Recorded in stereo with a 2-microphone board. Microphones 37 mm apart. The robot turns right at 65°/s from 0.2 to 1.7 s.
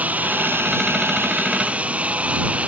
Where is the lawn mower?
135° right; by 2.7 s 40° right.